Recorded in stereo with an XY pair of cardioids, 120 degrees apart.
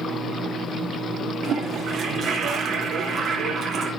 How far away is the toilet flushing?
About 4 m.